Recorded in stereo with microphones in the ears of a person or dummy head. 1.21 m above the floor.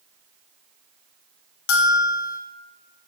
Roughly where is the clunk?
No clunk in this recording.